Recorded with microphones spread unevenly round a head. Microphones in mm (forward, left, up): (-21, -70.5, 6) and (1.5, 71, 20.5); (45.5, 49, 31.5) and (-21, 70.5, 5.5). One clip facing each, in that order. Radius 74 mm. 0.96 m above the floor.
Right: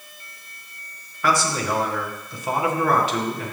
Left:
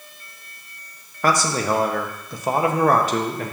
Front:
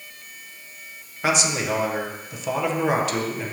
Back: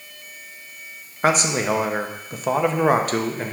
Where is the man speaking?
135° left, 0.8 m.